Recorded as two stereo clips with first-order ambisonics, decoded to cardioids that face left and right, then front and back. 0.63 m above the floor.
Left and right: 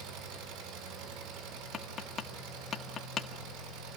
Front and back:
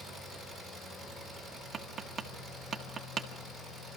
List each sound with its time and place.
0.0 s an engine running: 90° right, 6 m
1.7 s tapping: 130° left, 1.3 m